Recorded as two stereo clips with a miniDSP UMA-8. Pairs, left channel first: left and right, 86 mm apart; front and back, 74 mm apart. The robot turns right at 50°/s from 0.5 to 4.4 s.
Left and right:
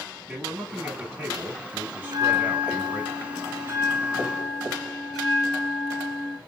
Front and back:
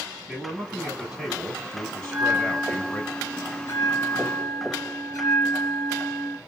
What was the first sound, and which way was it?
A man speaking, 135° right.